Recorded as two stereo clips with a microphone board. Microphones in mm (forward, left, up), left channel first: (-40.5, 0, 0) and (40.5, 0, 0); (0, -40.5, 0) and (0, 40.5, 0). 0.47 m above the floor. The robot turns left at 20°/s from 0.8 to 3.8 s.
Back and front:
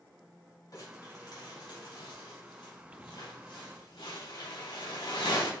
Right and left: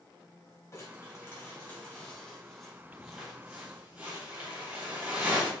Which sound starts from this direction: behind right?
Crumpling, at 0.7 s.